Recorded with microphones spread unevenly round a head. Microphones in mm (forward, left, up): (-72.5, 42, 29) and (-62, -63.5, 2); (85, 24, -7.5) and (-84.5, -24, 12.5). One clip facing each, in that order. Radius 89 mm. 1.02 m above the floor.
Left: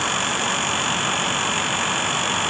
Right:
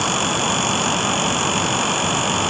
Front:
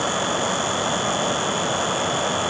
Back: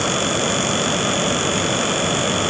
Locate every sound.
Only background noise.